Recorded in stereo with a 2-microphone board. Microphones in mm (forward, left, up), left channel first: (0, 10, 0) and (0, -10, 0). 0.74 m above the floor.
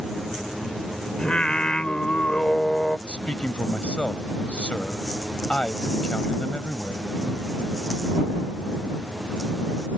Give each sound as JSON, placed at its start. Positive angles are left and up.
{"t": 1.2, "sound": "singing", "side_deg": 60}
{"t": 3.1, "sound": "a man speaking", "side_deg": 80}